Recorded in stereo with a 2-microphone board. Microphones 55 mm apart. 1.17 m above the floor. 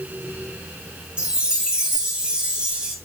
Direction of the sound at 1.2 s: 15° right (ahead or behind).